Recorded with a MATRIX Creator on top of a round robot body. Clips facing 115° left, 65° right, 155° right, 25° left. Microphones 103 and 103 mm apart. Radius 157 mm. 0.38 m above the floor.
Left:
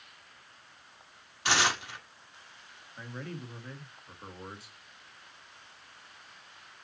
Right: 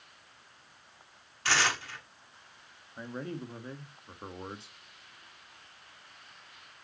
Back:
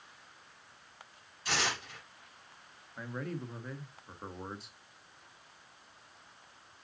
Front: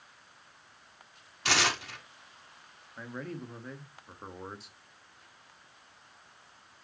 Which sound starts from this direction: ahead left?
Tearing paper, at 1.4 s.